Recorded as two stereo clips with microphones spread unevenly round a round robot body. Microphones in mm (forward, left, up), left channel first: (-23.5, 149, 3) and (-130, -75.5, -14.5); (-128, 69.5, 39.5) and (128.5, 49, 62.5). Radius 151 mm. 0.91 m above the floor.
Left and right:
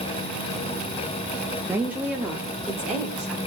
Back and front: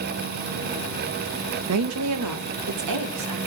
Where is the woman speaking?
35° right, 1.0 m; by 3.4 s 25° right, 3 m.